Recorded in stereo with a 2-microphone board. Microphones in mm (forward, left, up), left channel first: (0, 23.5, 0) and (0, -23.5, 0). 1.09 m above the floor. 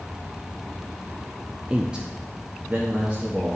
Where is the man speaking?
15° right (ahead or behind), 0.5 m; by 3.6 s 25° right (ahead or behind), 1.7 m.